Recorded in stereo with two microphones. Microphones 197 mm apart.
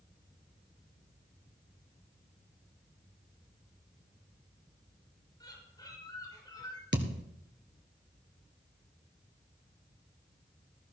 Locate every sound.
5.4 s a bird: 20° left (ahead or behind), 6.5 m
6.9 s a thud: 70° right (ahead or behind), 1.6 m